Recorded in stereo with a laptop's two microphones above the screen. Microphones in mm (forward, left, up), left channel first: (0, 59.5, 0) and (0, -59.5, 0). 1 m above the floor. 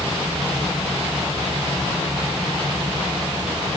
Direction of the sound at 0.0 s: 35° right (ahead or behind).